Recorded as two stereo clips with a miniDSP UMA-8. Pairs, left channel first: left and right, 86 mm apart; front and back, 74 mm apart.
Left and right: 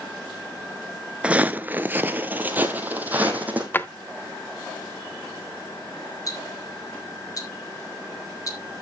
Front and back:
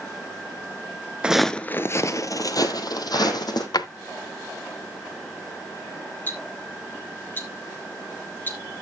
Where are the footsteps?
135° right, 0.5 m; by 3.6 s 20° right, 2 m.